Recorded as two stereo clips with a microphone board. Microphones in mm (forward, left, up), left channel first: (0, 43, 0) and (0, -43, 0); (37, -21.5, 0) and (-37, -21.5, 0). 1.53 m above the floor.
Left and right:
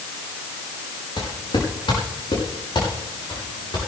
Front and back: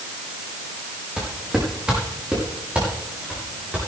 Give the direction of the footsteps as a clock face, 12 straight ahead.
9 o'clock.